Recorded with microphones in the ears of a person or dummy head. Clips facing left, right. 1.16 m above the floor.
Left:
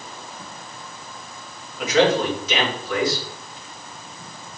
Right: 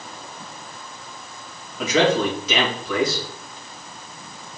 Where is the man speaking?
65° right (ahead or behind), 3.5 m.